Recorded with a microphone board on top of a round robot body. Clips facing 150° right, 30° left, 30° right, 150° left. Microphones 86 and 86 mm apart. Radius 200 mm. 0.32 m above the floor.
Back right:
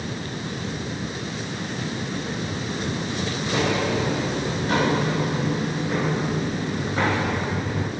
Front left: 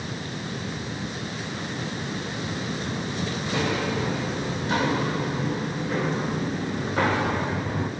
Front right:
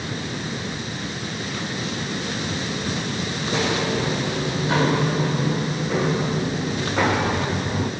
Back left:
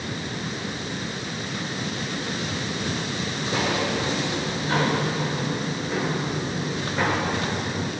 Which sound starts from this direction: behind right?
Footsteps, at 3.4 s.